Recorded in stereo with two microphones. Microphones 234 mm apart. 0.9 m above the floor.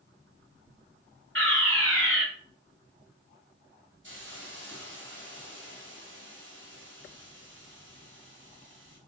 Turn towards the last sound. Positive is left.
turn(degrees=-55)  # may be behind; listen again after turning